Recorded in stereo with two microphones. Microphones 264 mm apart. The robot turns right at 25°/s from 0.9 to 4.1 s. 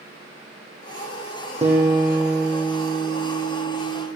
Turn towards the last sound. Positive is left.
turn(degrees=35)